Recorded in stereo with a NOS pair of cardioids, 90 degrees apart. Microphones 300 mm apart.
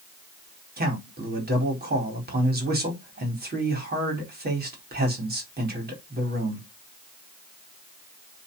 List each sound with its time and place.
0.8 s a man speaking: 30° right, 4.5 m